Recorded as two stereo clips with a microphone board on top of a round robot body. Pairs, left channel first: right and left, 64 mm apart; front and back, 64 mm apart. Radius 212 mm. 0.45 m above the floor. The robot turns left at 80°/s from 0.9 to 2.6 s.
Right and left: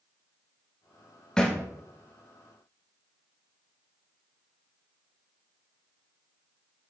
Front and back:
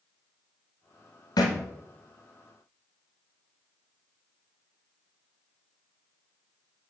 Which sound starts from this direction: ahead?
A thud, at 1.4 s.